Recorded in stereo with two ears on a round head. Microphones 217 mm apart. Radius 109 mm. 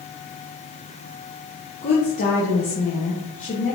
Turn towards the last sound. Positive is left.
turn(degrees=30)  # may be behind; listen again after turning